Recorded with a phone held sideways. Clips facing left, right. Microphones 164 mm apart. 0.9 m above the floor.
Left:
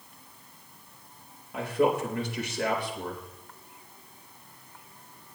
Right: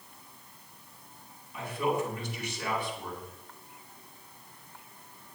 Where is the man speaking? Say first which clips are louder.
Left 5 dB; 80° left, 4 m.